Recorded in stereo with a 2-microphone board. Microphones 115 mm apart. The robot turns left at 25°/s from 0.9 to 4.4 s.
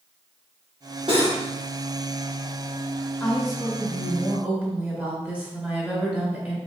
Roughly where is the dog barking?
I don't hear a dog barking.